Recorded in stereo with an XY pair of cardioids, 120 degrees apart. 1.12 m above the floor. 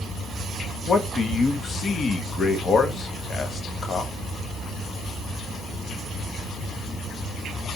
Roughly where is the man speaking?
Ahead left.